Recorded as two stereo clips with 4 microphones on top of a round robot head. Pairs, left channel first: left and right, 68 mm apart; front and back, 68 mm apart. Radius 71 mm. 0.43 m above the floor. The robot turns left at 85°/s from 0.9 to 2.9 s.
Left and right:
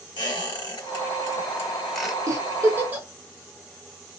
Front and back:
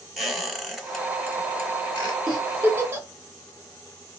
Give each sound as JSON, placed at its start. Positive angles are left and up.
{"t": 0.2, "sound": "a squeak", "azimuth_deg": 95, "distance_m": 1.3}
{"t": 2.3, "sound": "a giggle", "azimuth_deg": -90, "distance_m": 0.8}